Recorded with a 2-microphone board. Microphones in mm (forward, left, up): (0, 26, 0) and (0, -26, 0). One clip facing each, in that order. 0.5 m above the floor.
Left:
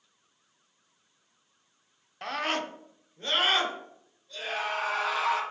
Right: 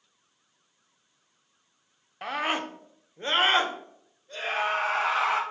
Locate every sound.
2.2 s a scream: 10° right (ahead or behind), 0.8 m; by 5.4 s 45° right (ahead or behind), 2.5 m